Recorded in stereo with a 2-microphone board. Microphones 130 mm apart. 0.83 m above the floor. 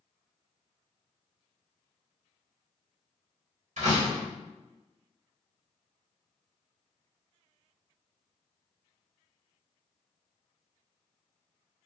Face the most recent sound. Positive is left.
turn(degrees=-75)  # may be behind; listen again after turning